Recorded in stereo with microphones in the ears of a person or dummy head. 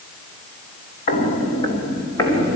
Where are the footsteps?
35° left (ahead or behind), 2.5 m; by 2.6 s 5° left (ahead or behind), 3.5 m.